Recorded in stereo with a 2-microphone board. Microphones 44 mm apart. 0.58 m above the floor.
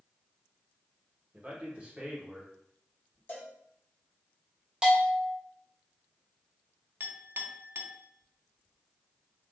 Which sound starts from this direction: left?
A cowbell, at 3.3 s.